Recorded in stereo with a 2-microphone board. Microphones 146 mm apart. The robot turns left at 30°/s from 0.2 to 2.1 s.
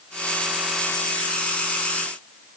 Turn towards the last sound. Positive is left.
No sound to turn to.